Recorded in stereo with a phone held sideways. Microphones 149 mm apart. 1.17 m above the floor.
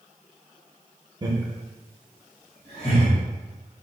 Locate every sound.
1.2 s laughter: 30° right (ahead or behind), 0.8 m; by 3.1 s 40° left (ahead or behind), 2 m